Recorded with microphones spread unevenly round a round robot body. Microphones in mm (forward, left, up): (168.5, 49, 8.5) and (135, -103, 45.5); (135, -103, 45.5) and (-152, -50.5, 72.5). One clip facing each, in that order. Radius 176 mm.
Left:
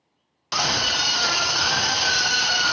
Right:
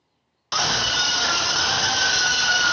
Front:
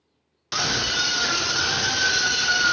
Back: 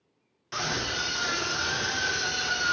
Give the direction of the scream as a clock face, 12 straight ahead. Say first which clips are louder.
Even, front 3 dB; 12 o'clock.